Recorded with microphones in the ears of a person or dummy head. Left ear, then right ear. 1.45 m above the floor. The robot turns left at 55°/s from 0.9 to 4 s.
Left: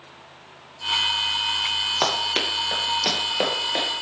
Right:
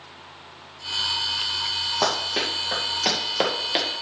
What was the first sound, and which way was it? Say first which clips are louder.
Running footsteps: left 1 dB; 55° left (ahead or behind).